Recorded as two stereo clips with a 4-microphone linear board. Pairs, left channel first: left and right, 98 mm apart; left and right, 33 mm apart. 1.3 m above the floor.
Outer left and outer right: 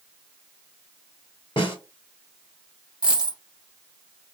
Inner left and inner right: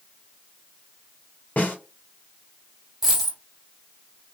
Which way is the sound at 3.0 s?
10° right (ahead or behind).